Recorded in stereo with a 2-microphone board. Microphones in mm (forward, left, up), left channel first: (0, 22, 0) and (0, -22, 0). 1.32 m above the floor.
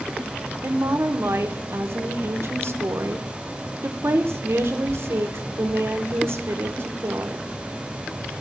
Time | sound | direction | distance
0.6 | a woman speaking | 60° right (ahead or behind) | 0.9 m